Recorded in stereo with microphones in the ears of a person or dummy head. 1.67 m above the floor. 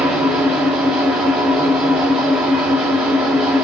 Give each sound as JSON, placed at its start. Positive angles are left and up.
{"t": 0.0, "sound": "an engine running", "side_deg": 0, "distance_m": 0.9}